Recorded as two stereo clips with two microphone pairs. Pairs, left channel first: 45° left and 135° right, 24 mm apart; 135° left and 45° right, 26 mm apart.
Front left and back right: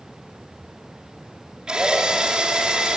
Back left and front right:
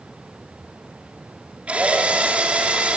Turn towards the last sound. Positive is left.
turn(degrees=-85)